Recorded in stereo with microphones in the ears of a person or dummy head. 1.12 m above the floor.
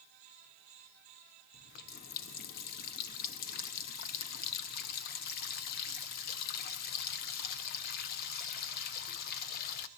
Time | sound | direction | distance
1.5 | a running tap | 55° left (ahead or behind) | 0.7 m